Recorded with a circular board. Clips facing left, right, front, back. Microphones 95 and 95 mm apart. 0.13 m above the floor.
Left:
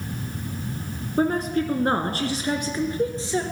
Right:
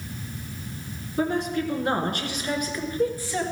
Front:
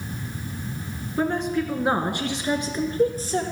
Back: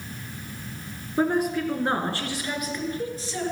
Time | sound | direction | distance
1.2 | a woman speaking | 110° left | 1.4 m